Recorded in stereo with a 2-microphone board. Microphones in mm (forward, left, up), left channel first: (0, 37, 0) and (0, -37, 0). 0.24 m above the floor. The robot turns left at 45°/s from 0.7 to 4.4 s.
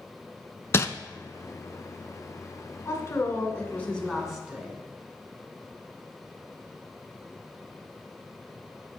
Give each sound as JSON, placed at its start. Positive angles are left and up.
{"t": 0.7, "sound": "crumpling", "side_deg": 35, "distance_m": 0.6}
{"t": 2.9, "sound": "a woman speaking", "azimuth_deg": 60, "distance_m": 2.0}